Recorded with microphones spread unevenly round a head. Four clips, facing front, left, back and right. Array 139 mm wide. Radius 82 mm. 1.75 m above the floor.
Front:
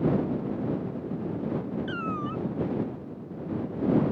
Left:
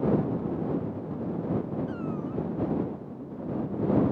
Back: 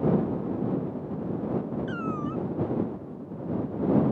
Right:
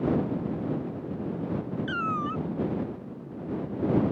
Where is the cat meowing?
70° right.